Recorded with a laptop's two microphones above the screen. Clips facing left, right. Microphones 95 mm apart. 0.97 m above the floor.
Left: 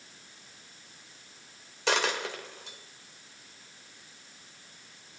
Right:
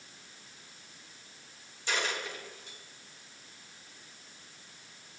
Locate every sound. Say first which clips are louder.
1.9 s a dropped coin: left 6 dB; 80° left, 1.8 m